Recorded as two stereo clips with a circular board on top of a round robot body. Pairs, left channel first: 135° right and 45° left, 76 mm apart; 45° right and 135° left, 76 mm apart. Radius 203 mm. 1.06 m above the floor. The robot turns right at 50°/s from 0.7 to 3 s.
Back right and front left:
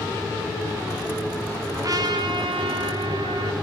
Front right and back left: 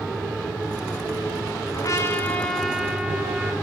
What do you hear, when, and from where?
1.7 s a trumpet: 5° right, 1.9 m; by 3.5 s 60° left, 1.9 m